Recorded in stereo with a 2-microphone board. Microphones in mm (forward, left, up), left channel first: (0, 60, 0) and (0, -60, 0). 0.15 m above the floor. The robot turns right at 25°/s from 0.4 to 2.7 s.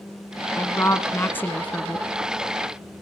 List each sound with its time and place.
0.6 s a woman speaking: 25° left (ahead or behind), 1.4 m; by 2.1 s 10° left (ahead or behind), 1.4 m